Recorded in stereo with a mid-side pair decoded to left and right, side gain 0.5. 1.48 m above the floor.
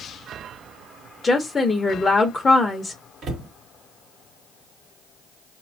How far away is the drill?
I don't hear a drill.